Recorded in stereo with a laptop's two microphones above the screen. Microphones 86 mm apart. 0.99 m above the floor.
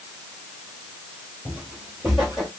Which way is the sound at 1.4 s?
20° right (ahead or behind).